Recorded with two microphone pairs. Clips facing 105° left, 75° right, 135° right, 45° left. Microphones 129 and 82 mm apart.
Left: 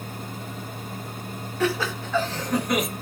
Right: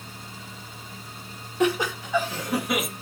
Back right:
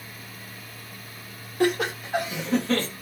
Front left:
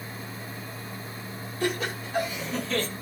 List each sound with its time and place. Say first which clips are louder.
1.6 s laughter: right 2 dB, back right 6 dB; 145° right, 3 m; by 2.9 s 160° right, 3 m